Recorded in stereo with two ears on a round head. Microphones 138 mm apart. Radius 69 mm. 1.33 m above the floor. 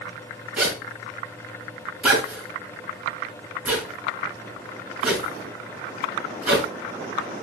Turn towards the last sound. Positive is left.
turn(degrees=-10)  # may be behind; listen again after turning